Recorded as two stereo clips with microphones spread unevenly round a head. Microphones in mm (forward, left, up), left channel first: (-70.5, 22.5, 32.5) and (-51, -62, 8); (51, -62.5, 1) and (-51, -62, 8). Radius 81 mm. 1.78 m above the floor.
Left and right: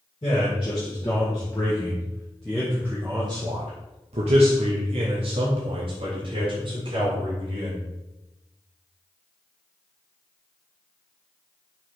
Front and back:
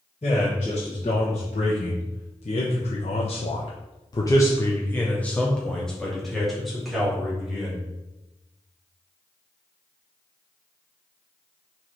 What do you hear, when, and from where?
0.2 s a man speaking: 50° left, 2.5 m; by 7.8 s 95° right, 3 m